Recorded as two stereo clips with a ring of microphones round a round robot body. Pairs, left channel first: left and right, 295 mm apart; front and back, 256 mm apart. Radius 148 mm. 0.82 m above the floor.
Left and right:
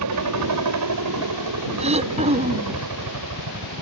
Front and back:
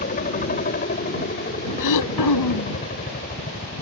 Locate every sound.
0.0 s a helicopter: 65° right
1.8 s throat clearing: 20° right